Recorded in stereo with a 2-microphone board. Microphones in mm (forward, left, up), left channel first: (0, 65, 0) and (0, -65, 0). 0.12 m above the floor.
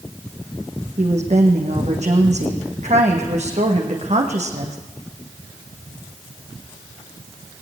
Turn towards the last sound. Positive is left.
turn(degrees=-60)  # may be behind; listen again after turning